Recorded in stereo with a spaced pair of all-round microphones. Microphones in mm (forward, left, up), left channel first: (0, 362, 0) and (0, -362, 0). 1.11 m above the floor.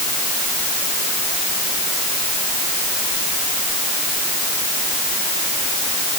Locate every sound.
Only background noise.